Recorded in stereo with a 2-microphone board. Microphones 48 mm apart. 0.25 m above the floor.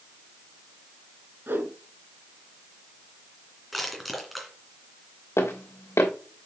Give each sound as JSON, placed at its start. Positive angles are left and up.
{"t": 1.5, "sound": "a whoosh", "side_deg": -50, "distance_m": 2.5}
{"t": 3.7, "sound": "crushing", "side_deg": 0, "distance_m": 2.5}
{"t": 5.4, "sound": "footsteps", "side_deg": 75, "distance_m": 2.5}